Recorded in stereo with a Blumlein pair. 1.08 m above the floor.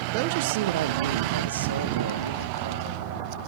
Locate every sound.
0.1 s a man speaking: 45° right, 0.9 m; by 3.0 s 80° right, 2 m